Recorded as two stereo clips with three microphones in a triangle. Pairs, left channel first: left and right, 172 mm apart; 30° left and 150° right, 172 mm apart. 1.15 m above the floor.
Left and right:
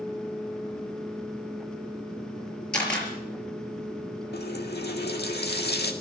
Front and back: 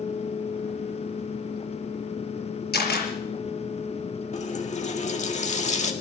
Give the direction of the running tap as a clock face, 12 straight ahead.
9 o'clock.